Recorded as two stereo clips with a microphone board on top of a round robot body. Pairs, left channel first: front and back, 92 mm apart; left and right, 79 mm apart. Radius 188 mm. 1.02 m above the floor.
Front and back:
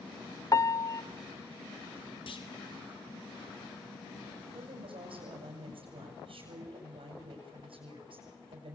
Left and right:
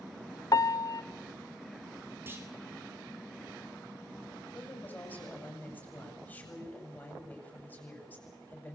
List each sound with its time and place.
0.5 s a piano: 50° left, 1.0 m
2.3 s a clunk: 25° right, 2.5 m
4.5 s a woman speaking: 160° left, 7 m